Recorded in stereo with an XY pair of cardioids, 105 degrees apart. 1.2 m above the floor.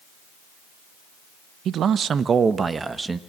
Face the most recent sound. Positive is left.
turn(degrees=-20)